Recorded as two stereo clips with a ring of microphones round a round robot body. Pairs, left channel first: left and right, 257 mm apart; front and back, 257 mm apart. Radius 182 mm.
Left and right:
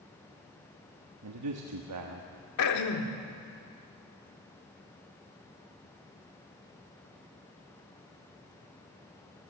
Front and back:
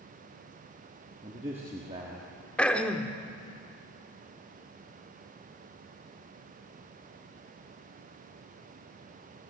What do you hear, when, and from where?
1.2 s a man speaking: 105° right, 1.2 m
2.6 s throat clearing: 85° left, 1.5 m